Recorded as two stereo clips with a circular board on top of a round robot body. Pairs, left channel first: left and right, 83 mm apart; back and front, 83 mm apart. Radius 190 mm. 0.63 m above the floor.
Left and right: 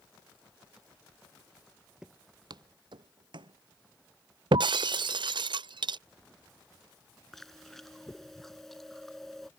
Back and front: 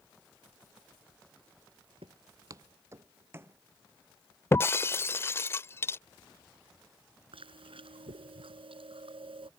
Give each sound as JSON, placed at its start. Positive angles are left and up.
{"t": 2.0, "sound": "footsteps", "azimuth_deg": -5}
{"t": 4.5, "sound": "breaking glass", "azimuth_deg": -120}
{"t": 7.3, "sound": "chewing", "azimuth_deg": 5}